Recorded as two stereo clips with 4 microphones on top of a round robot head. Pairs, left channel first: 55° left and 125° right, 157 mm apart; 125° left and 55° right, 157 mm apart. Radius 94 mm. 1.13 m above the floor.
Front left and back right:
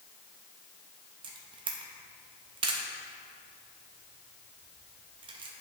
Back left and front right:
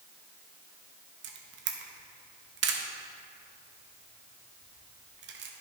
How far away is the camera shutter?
About 0.5 m.